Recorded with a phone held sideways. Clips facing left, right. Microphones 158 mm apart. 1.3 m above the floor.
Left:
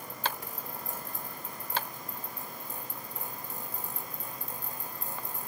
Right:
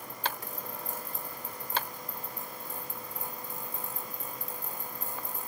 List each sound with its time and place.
Only background noise.